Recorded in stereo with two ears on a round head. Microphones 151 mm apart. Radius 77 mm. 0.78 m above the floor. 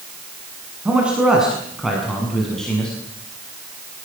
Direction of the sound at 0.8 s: 5° right (ahead or behind).